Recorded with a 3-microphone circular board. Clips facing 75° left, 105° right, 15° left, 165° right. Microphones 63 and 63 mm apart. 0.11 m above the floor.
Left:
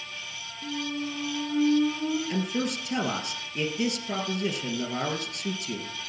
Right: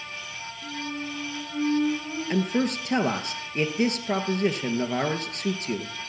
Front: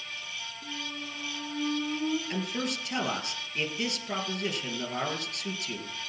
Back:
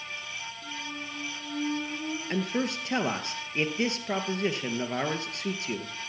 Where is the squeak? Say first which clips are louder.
Left 2 dB, front 1 dB; 80° left, 4 m.